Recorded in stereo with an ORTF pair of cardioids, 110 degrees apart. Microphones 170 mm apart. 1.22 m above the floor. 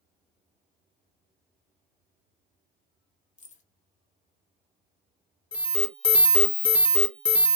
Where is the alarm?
5° left, 0.8 m.